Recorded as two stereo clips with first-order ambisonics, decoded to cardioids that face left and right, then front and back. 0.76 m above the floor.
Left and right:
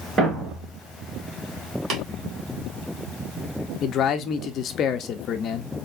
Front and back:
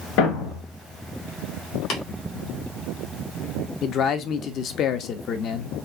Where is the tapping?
45° right, 1.6 m.